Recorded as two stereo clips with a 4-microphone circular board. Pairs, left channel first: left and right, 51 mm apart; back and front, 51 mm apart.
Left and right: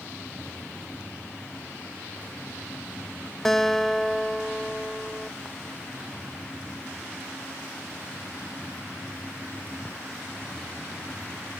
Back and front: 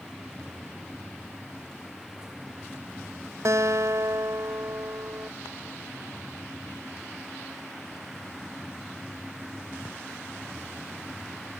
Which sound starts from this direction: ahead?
A guitar, at 3.5 s.